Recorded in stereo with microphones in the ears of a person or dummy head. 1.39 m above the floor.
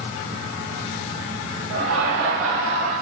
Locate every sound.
1.7 s laughter: 70° right (ahead or behind), 4 m; by 2.9 s 75° right (ahead or behind), 5 m